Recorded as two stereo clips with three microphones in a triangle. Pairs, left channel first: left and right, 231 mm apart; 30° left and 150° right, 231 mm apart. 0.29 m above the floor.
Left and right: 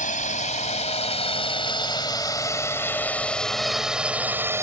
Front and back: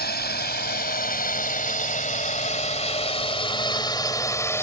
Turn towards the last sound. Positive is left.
turn(degrees=-30)